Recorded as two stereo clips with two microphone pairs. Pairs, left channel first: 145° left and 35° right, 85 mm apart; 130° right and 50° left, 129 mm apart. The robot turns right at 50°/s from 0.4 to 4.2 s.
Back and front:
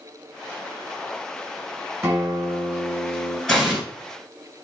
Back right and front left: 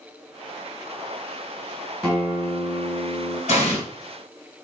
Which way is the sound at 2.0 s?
45° right.